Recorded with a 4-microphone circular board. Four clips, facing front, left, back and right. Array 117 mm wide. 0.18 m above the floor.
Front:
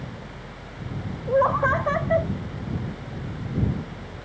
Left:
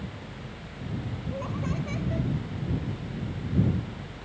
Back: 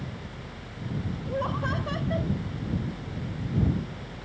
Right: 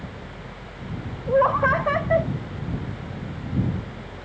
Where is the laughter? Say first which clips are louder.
Right 16 dB, front 11 dB; 55° right.